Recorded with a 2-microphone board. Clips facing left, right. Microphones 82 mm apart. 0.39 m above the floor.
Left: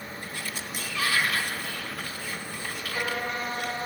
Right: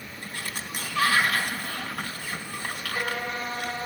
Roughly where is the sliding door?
Right.